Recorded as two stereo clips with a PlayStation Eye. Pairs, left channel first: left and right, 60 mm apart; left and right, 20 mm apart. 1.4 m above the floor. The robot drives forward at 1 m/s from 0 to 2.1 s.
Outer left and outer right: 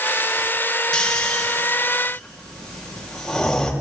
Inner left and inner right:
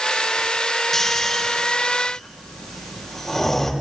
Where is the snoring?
15° left (ahead or behind), 2.5 m; by 3.7 s 10° left (ahead or behind), 3.5 m.